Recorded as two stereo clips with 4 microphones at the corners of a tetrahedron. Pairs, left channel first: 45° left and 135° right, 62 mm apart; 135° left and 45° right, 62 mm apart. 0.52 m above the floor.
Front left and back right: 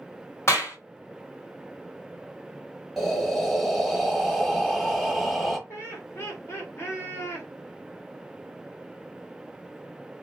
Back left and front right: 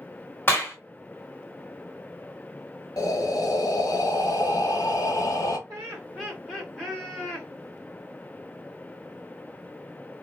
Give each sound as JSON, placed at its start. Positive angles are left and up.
{"t": 0.5, "sound": "a clap", "azimuth_deg": 85, "distance_m": 1.2}
{"t": 3.0, "sound": "breathing", "azimuth_deg": 135, "distance_m": 0.6}
{"t": 5.7, "sound": "laughter", "azimuth_deg": 60, "distance_m": 1.5}